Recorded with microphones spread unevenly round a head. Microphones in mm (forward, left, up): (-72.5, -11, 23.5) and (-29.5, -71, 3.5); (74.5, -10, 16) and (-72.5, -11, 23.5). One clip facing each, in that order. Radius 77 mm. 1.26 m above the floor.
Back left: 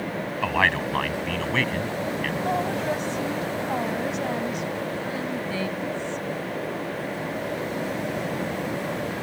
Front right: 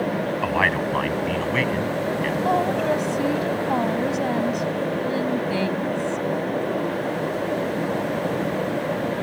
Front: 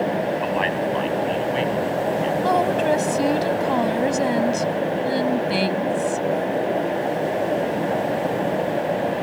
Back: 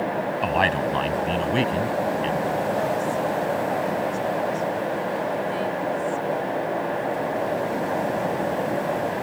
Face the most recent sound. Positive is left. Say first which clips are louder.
# front right 5 dB, front 5 dB
turn(degrees=10)